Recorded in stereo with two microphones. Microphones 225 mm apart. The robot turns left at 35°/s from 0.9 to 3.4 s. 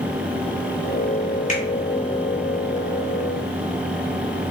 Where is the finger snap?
35° left (ahead or behind), 1.5 m.